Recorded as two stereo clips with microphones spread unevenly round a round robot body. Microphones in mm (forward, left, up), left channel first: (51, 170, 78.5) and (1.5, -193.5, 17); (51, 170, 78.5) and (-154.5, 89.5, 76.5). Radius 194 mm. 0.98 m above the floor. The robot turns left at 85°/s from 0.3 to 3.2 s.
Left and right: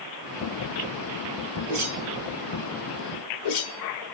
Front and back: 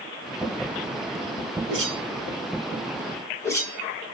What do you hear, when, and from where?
1.7 s a whoosh: 130° right, 3 m; by 4.1 s 100° left, 3 m